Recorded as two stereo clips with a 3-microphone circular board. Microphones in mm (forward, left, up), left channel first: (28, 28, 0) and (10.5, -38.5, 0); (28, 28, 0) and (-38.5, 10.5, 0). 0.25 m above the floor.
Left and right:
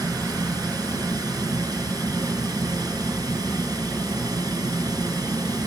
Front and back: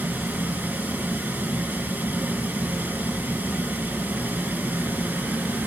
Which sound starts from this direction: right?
Running water, at 0.0 s.